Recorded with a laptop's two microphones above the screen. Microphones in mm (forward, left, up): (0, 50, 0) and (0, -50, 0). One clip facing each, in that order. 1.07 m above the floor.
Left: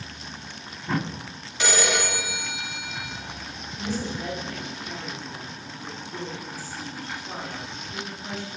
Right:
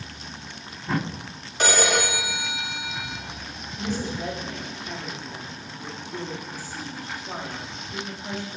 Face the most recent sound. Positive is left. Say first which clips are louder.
# right 1 dB
turn(degrees=-25)  # may be behind; listen again after turning